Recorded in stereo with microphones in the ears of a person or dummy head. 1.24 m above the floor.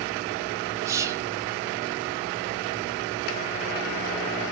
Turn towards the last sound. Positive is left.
turn(degrees=-15)  # may be behind; listen again after turning